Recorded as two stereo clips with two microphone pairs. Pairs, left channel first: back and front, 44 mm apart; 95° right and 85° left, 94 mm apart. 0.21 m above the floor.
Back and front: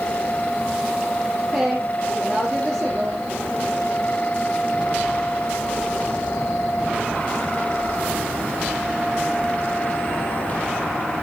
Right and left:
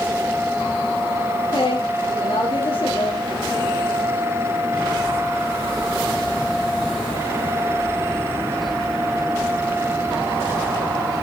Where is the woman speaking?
55° right, 5.5 m.